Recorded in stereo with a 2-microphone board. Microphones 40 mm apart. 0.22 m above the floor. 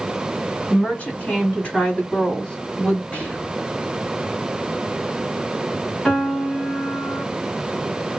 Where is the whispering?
35° left (ahead or behind), 1.9 m.